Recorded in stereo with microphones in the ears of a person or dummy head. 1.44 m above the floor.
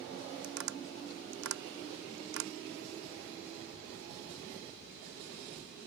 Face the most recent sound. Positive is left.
turn(degrees=-80)